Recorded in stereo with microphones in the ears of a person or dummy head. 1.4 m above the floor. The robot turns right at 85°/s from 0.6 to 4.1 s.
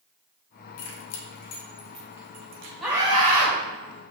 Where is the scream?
Straight behind, 3.5 m; by 3.5 s 115° right, 3.5 m.